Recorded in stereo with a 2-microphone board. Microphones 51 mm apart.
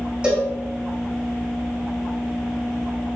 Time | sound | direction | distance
0.2 | a cowbell | 20° right (ahead or behind) | 3.5 m